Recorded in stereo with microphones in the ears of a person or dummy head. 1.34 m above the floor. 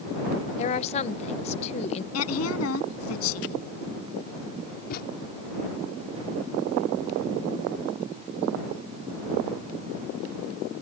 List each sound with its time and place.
0.6 s a woman speaking: 40° left (ahead or behind)
2.1 s a woman speaking: 80° left
4.9 s a thud: 50° left (ahead or behind)